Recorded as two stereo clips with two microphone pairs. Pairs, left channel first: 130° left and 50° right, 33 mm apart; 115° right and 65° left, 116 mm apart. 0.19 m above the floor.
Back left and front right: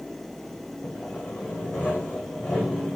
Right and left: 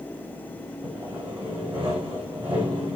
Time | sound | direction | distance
0.8 | sawing | 110° left | 4.5 m